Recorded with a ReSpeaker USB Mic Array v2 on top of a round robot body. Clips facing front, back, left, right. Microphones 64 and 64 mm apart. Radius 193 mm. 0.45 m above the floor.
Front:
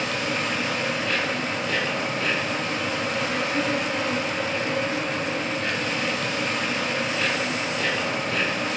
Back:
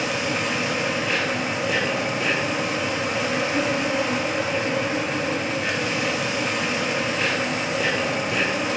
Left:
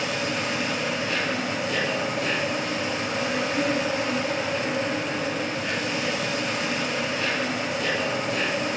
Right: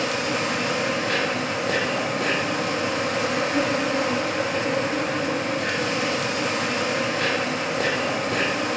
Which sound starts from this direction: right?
An insect, at 0.0 s.